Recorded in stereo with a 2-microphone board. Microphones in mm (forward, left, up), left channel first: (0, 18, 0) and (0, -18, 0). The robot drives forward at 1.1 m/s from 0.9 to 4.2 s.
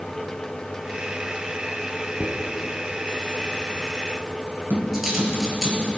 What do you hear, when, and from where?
2.2 s a dropped coin: 20° right (ahead or behind), 1.1 m; by 5.7 s 10° right (ahead or behind), 3 m
4.7 s tapping: 75° right (ahead or behind), 3 m